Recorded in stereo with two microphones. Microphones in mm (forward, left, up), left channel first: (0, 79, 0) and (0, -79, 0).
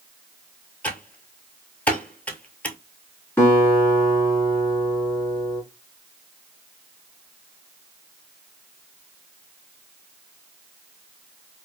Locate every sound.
0.8 s typing on a keyboard: 10° left (ahead or behind), 0.6 m
3.4 s a guitar: 15° left (ahead or behind), 1.5 m